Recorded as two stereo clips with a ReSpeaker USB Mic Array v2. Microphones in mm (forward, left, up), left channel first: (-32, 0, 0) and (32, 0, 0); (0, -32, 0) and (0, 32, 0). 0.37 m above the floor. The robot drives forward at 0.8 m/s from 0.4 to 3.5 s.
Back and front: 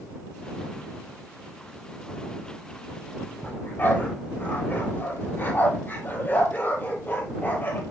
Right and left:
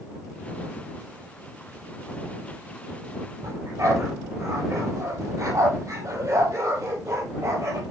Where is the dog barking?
120° left, 3.5 m.